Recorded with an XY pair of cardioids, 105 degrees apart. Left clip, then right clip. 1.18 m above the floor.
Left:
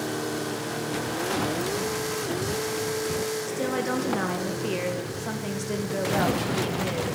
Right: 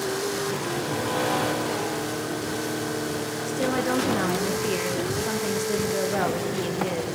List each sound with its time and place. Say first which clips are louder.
3.5 s a woman speaking: right 2 dB; straight ahead, 0.9 m